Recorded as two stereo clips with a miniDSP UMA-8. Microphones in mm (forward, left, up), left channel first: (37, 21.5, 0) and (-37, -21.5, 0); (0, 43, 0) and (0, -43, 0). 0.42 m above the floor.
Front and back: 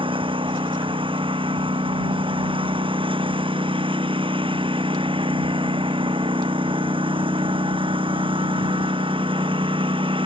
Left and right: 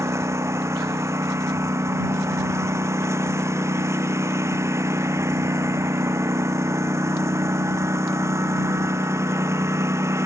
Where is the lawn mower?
150° right.